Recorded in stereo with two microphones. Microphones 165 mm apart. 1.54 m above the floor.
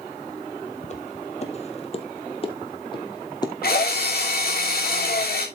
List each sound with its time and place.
0.8 s footsteps: 45° left (ahead or behind), 2 m; by 3.5 s 25° left (ahead or behind), 2.5 m
3.6 s a drill: 70° left (ahead or behind), 3.5 m